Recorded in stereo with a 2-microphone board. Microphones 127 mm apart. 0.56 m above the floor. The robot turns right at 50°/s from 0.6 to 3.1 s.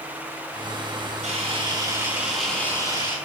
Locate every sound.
1.2 s a camera shutter: 60° right, 4.5 m; by 3.2 s 35° left, 4.5 m